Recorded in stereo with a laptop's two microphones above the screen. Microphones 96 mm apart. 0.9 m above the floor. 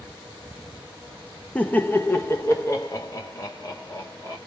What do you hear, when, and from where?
1.6 s laughter: 15° left (ahead or behind), 0.6 m; by 4.4 s 35° left (ahead or behind), 1.8 m